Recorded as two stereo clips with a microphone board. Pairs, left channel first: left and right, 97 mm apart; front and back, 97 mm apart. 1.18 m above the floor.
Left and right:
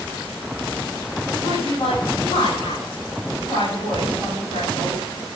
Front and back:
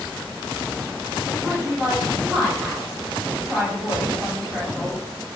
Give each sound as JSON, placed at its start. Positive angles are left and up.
{"t": 1.4, "sound": "a woman speaking", "azimuth_deg": 100, "distance_m": 9.0}